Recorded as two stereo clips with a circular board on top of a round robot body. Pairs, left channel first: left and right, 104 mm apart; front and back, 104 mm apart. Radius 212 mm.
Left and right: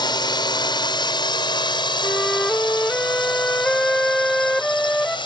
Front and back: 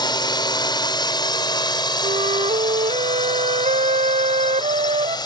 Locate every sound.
0.0 s a drone: 45° left; by 5.3 s 50° left
2.0 s a flute: 170° left